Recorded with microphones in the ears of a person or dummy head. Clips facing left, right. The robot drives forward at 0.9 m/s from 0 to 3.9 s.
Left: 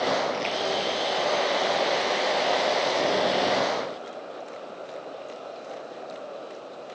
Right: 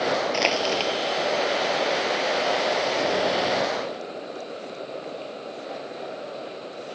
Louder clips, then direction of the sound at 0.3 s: Right 3 dB; 75° right (ahead or behind).